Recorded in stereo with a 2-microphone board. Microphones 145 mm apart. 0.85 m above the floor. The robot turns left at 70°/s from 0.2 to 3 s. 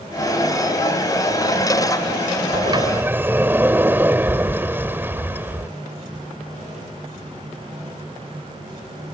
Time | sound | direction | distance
2.5 | a sliding door | 130° right | ?